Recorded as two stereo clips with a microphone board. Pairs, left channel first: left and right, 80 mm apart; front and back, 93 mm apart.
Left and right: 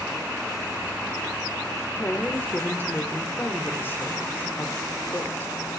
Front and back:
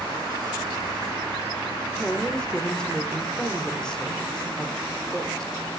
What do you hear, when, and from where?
1.9 s a woman speaking: 70° left, 0.9 m